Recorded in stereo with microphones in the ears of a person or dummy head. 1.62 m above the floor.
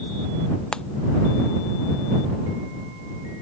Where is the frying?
5° left (ahead or behind).